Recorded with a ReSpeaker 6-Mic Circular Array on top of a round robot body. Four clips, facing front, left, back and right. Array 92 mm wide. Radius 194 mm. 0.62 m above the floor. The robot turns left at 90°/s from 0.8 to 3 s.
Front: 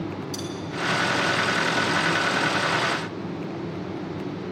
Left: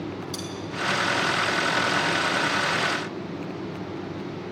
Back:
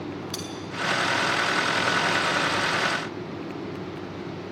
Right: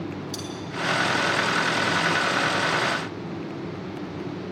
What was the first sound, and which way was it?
Cutlery clinking, straight behind.